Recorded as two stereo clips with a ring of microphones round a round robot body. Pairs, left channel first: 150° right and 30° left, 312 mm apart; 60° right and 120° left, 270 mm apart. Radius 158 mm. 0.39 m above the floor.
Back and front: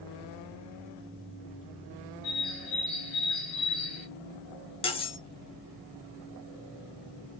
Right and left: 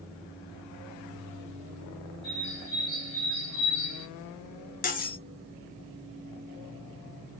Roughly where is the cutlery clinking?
Right.